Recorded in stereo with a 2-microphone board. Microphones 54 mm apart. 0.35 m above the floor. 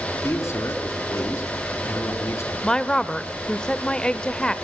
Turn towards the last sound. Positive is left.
turn(degrees=15)  # may be behind; listen again after turning